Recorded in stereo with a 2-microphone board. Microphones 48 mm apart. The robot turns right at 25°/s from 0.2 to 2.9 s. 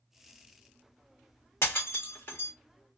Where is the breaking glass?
70° left (ahead or behind), 0.9 m; by 2.5 s 50° left (ahead or behind), 0.9 m.